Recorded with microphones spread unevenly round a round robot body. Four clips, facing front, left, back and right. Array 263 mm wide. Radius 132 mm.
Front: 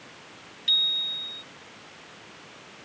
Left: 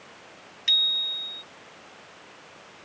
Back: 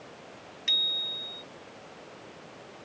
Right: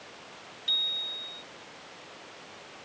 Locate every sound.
0.7 s a bicycle bell: 110° left